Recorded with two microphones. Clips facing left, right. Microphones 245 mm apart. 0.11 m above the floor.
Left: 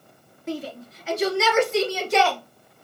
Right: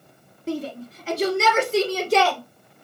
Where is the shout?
30° right (ahead or behind), 1.4 m; by 2.4 s 40° right (ahead or behind), 2 m.